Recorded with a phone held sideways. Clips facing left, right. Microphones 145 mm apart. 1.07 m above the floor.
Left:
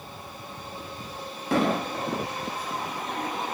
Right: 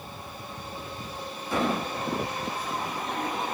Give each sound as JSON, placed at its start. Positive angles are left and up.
{"t": 1.5, "sound": "an explosion", "side_deg": 85, "distance_m": 0.9}